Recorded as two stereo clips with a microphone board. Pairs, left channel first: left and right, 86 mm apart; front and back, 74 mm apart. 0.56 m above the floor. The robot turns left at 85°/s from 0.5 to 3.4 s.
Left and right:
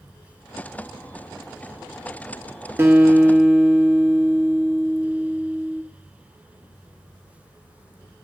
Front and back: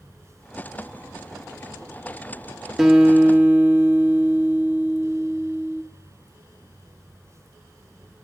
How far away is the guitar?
About 1.2 m.